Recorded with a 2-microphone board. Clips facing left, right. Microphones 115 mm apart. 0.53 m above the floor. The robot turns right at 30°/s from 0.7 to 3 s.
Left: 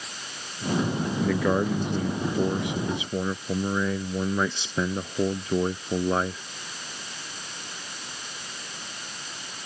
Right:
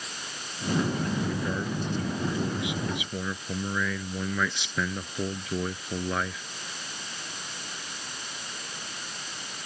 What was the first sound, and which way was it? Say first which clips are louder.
A man speaking: left 7 dB; 95° left.